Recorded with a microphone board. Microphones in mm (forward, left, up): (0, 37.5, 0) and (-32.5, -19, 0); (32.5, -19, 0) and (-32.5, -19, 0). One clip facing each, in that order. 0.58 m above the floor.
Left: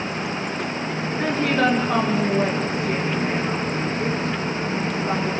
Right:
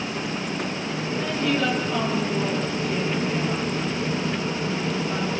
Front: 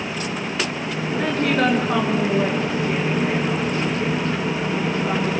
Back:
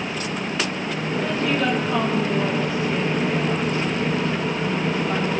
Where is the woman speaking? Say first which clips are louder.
Left 4 dB, front 3 dB; 25° left, 6.5 m; by 5.3 s 45° left, 8.5 m.